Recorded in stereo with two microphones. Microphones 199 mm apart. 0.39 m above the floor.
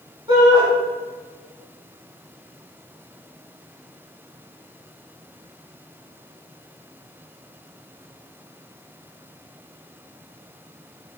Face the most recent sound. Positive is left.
turn(degrees=-25)  # may be behind; listen again after turning